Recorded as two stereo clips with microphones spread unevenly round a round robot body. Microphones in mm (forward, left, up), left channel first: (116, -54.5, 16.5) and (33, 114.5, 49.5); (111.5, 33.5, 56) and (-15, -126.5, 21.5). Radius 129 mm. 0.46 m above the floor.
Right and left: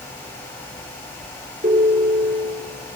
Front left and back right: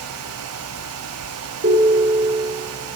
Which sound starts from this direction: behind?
A ringtone, at 1.6 s.